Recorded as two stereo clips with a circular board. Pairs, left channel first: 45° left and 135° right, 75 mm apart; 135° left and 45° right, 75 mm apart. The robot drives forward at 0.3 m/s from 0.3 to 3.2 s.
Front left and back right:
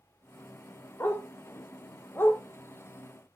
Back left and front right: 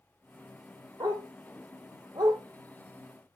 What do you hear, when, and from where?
1.0 s a dog barking: 15° right, 1.9 m